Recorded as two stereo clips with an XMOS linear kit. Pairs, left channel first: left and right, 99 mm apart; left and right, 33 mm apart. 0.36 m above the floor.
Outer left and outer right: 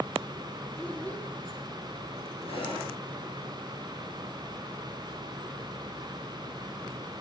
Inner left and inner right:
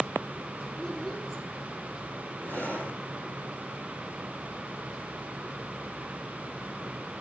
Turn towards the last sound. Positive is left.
turn(degrees=65)  # may be behind; listen again after turning